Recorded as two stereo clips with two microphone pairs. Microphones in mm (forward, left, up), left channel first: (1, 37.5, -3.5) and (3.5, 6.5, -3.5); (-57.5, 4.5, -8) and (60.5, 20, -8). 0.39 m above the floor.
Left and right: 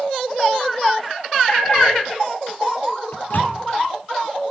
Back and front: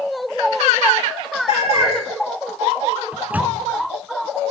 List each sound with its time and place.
1.5 s a cat meowing: 155° left, 10 m
3.1 s a microwave: 85° left, 3 m